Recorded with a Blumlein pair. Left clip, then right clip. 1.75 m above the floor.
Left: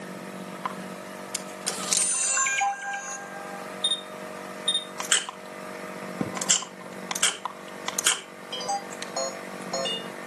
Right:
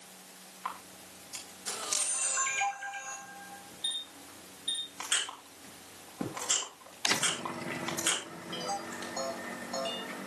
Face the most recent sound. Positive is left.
turn(degrees=25)